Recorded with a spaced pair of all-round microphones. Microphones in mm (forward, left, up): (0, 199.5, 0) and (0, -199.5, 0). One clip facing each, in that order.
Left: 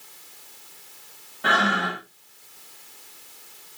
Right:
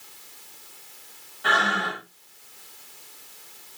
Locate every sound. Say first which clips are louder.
1.4 s breathing: left 3 dB; 85° left, 3 m